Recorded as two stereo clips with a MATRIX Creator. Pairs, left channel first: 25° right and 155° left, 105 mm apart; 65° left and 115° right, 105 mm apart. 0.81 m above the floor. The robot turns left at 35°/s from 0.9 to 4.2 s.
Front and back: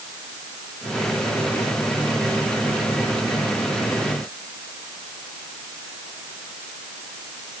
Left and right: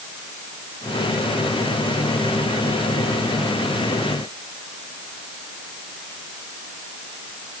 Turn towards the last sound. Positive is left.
No sound to turn to.